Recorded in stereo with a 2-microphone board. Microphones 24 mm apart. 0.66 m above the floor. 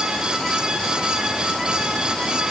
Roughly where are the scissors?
No scissors in this recording.